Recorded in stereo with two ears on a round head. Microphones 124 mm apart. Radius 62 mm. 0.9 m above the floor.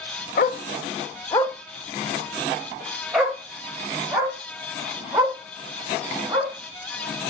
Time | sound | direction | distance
0.4 | a dog barking | 65° left (ahead or behind) | 0.7 m